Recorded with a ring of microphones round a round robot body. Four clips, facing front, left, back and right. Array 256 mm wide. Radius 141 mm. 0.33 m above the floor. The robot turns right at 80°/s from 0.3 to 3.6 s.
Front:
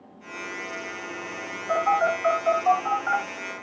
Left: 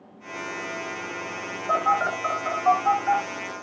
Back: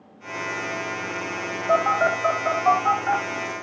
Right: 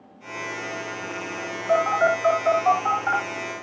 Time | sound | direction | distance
1.7 | a phone buzzing | 140° left | 5.5 m